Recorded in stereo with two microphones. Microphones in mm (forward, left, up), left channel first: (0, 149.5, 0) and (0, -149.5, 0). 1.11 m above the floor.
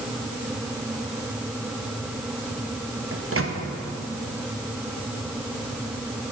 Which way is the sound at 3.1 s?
45° right (ahead or behind).